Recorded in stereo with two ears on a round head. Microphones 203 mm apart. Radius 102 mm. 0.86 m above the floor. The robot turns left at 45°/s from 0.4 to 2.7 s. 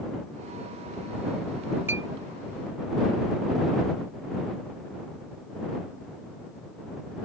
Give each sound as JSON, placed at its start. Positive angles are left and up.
{"t": 1.9, "sound": "a clink", "side_deg": -10}